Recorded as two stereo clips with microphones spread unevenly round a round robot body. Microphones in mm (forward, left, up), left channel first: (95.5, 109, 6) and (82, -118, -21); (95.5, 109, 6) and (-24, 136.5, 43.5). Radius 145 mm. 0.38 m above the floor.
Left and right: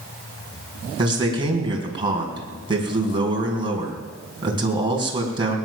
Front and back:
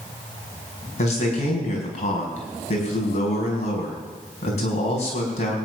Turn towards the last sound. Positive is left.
turn(degrees=-25)